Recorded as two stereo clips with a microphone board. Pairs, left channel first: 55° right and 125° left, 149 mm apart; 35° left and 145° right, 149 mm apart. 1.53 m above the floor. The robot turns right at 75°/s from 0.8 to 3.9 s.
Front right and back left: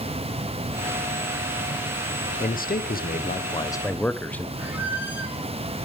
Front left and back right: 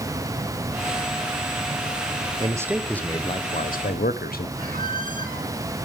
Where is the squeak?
160° right, 1.7 m.